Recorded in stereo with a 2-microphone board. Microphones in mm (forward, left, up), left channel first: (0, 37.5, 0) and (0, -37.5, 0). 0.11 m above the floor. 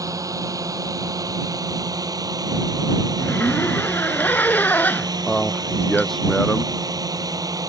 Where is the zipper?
25° left (ahead or behind).